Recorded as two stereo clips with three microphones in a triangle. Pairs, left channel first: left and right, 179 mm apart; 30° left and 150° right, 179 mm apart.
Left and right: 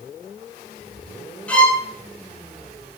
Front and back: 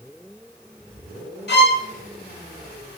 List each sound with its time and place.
1.5 s a violin: 10° left, 0.5 m